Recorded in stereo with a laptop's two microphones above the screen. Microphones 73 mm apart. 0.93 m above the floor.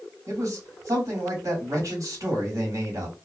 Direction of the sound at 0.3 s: 55° right (ahead or behind).